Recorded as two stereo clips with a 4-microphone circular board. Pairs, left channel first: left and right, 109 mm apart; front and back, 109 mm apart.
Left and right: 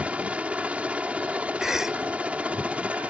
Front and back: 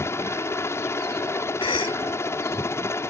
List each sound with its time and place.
0.0 s a helicopter: 25° right
1.6 s a cough: 5° right